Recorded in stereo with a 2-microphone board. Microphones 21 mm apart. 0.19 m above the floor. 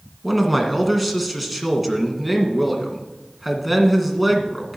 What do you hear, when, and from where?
0.2 s a man speaking: 5° right (ahead or behind), 2.0 m